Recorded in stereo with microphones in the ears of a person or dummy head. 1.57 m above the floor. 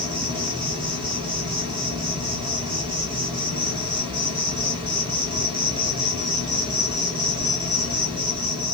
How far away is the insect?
About 1.1 m.